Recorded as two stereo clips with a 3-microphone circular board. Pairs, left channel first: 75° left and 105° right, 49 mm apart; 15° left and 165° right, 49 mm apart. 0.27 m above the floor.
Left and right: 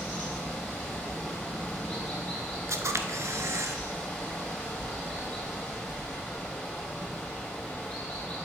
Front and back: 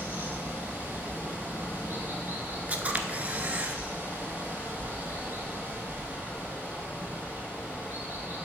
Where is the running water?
150° left, 3 m.